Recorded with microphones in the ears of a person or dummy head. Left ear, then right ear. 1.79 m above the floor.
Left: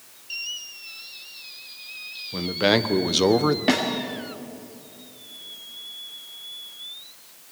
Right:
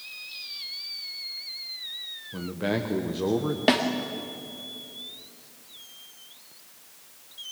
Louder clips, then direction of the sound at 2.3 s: Left 9 dB; 30° left (ahead or behind).